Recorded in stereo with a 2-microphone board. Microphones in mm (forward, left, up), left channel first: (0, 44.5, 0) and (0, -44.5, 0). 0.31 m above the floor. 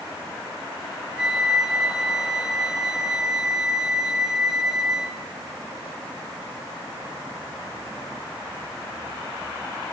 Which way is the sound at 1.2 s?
5° right (ahead or behind).